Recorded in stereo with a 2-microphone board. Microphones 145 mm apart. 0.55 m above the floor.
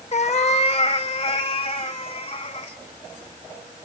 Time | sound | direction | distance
0.1 | a cat meowing | 50° left (ahead or behind) | 0.6 m